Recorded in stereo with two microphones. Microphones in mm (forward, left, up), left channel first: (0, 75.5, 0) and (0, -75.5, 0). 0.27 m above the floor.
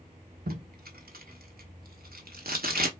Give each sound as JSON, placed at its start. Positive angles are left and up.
{"t": 0.5, "sound": "tape being pulled", "side_deg": -85, "distance_m": 0.9}